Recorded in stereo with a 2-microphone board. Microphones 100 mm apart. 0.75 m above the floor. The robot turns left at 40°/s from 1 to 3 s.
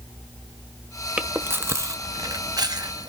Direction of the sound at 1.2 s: 15° right (ahead or behind).